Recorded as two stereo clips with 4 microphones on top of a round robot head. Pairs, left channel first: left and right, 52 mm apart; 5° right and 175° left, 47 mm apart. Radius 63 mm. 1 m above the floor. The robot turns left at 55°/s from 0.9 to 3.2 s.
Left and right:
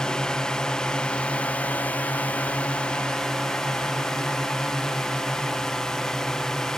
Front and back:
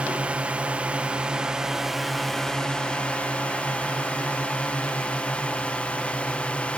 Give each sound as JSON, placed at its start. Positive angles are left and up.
{"t": 0.0, "sound": "a drone", "azimuth_deg": 150}